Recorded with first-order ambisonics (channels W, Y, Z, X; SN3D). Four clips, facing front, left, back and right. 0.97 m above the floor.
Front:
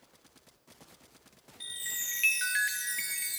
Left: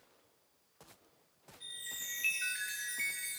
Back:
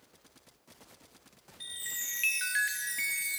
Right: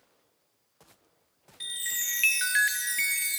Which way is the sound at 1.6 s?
85° right.